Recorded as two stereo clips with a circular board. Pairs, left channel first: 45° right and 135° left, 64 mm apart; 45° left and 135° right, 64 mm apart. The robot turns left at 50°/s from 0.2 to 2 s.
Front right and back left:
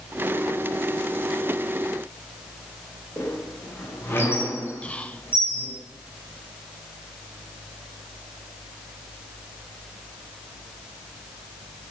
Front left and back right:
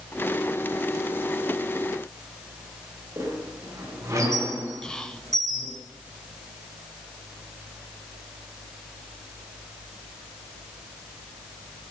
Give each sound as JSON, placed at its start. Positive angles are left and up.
{"t": 3.2, "sound": "a squeak", "azimuth_deg": -100, "distance_m": 9.0}
{"t": 4.8, "sound": "whispering", "azimuth_deg": -15, "distance_m": 1.1}